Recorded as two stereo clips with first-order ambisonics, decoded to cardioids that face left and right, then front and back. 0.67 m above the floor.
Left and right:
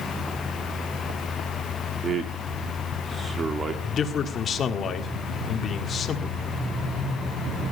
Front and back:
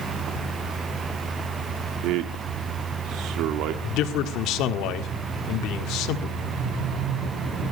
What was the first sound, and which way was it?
A man speaking, 155° right.